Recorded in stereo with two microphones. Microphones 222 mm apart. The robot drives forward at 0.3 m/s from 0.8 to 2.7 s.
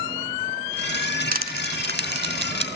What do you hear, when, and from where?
1.3 s crushing: 45° right (ahead or behind), 1.1 m; by 2.6 s 60° right (ahead or behind), 0.9 m